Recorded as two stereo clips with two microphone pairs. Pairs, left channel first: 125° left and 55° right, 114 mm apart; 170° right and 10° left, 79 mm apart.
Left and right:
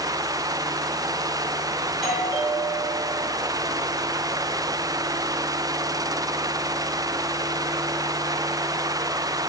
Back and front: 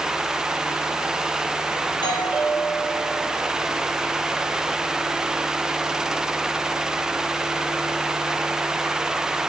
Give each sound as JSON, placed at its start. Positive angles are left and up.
{"t": 1.9, "sound": "a doorbell", "azimuth_deg": -150, "distance_m": 7.5}